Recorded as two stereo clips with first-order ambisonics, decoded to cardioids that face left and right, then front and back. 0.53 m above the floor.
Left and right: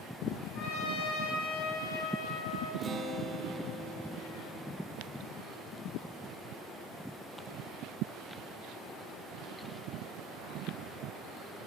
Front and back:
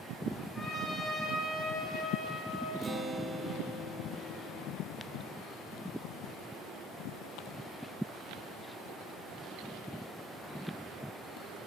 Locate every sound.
0.6 s a trumpet: 80° left, 3 m
2.8 s a guitar: 135° right, 0.7 m